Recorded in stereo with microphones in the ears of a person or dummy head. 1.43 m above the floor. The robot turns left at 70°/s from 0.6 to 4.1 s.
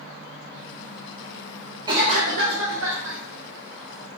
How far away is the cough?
About 0.7 m.